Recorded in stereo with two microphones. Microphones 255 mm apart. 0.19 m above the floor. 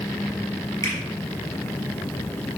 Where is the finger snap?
15° left (ahead or behind), 4 m.